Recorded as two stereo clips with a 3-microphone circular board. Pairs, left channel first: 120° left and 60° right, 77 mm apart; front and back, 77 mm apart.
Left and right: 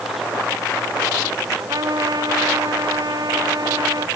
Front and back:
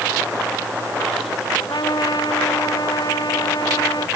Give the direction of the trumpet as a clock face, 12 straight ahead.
1 o'clock.